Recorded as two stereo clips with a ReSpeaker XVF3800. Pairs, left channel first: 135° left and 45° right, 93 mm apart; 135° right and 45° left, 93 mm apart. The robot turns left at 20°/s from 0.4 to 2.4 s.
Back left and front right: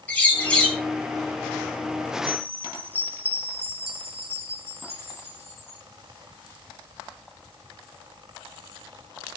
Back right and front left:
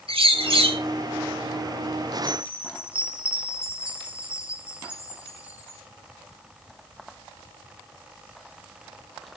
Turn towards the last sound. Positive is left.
turn(degrees=-35)